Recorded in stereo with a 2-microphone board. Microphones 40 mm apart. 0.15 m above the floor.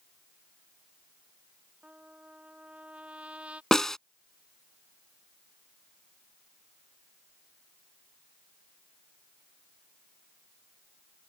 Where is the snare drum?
10° left (ahead or behind).